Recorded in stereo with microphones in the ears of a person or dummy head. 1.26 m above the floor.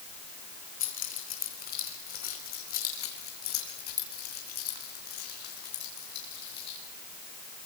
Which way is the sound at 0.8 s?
35° left (ahead or behind).